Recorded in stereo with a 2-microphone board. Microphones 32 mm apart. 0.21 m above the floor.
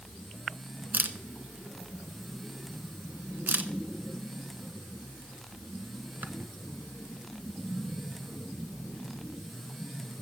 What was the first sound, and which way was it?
A camera shutter, 65° right (ahead or behind).